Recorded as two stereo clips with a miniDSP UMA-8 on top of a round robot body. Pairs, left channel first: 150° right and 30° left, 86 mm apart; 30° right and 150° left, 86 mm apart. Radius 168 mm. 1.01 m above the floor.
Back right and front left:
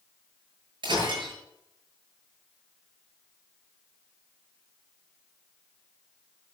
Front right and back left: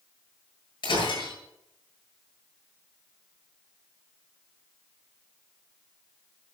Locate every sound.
0.8 s breaking glass: straight ahead, 7.5 m